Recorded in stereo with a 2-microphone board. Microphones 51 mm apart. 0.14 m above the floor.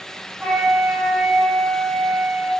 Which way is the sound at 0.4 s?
30° right (ahead or behind).